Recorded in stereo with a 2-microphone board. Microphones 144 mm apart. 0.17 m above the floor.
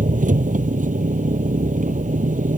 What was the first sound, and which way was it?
An engine running, 65° right (ahead or behind).